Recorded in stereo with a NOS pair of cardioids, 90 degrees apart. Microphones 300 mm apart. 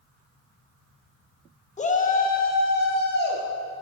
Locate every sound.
1.8 s a shout: 25° left, 1.0 m; by 3.4 s 35° left, 2 m